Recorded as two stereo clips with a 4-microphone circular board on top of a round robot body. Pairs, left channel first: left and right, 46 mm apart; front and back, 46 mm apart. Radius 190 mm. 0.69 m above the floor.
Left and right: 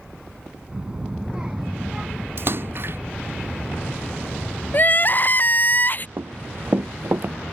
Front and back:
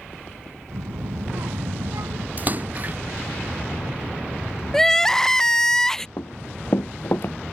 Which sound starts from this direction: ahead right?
Running footsteps, at 6.2 s.